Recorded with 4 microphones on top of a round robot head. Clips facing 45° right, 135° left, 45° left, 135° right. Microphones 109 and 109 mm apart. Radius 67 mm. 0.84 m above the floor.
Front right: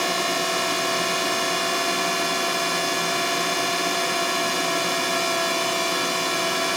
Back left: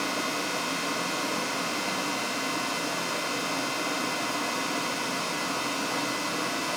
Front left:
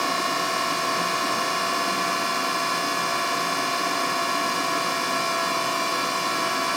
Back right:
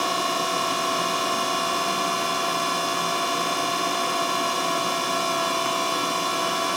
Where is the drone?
55° right.